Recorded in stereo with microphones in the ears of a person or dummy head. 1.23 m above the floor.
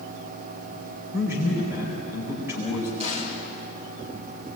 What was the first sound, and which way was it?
A man speaking, 10° right (ahead or behind).